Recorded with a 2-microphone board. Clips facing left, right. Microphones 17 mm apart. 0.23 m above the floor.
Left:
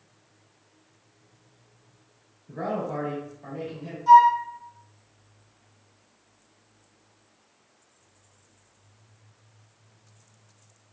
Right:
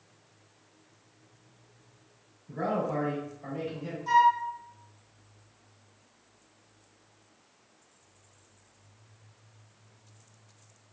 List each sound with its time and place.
2.5 s a man speaking: 25° left (ahead or behind), 1.6 m; by 4.0 s 10° right (ahead or behind), 1.6 m
4.1 s a flute: 15° left (ahead or behind), 0.9 m